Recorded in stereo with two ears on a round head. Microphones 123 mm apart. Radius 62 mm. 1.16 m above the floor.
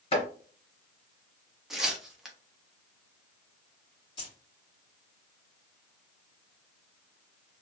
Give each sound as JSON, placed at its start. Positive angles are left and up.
{"t": 0.1, "sound": "chopping", "side_deg": 45, "distance_m": 2.5}
{"t": 1.7, "sound": "tearing paper", "side_deg": -5, "distance_m": 1.0}
{"t": 4.2, "sound": "keys jangling", "side_deg": 40, "distance_m": 1.8}